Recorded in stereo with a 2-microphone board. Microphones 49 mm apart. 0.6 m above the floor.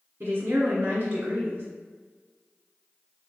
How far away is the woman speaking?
About 1.5 m.